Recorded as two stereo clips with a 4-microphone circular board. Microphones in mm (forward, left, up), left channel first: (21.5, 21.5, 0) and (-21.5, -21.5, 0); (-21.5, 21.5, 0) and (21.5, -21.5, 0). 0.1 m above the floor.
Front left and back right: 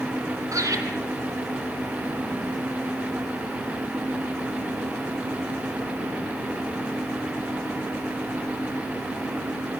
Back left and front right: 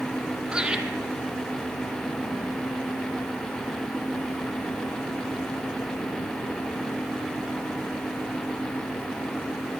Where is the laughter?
120° right, 3.5 m.